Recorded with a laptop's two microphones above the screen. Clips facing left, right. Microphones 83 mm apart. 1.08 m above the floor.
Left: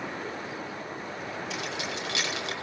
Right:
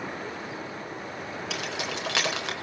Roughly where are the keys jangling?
Right.